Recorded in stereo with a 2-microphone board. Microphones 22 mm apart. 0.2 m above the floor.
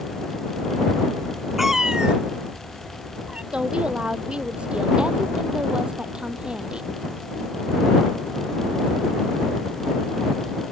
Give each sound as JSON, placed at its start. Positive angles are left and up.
{"t": 1.6, "sound": "a cat meowing", "side_deg": -10}
{"t": 3.5, "sound": "a woman speaking", "side_deg": -45}